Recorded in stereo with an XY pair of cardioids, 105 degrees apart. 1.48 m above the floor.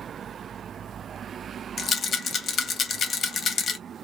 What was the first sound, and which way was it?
A rattle, 50° left.